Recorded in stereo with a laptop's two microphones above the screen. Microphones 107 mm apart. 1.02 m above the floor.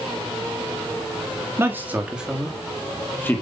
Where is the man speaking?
20° right (ahead or behind), 2 m; by 3.4 s 20° left (ahead or behind), 2 m.